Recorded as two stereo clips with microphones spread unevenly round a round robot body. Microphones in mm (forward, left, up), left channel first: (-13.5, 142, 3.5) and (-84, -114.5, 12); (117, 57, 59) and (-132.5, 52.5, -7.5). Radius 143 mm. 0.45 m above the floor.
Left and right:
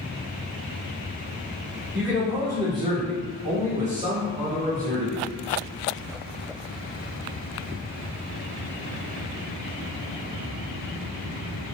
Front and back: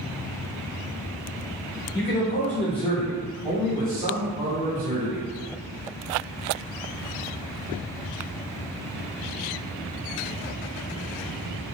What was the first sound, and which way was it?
A man speaking, 20° right.